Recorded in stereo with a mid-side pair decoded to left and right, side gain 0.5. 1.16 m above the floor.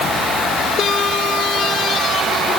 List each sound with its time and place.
Only background noise.